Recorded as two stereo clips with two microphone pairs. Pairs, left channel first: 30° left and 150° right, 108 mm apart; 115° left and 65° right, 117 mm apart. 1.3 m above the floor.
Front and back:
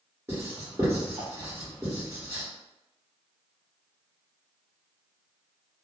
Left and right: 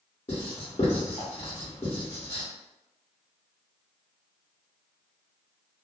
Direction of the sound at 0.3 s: 145° left.